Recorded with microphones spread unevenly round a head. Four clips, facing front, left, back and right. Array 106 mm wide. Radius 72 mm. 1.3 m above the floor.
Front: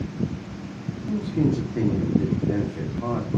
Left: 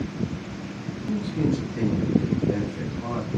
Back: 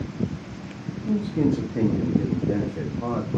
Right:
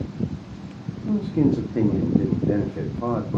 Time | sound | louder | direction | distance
1.1 | a man speaking | right 5 dB, back 1 dB | 95° right | 1.7 m